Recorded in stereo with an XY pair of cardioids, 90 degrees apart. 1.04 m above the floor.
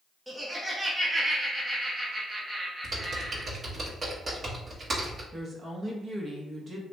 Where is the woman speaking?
40° right, 1.1 m.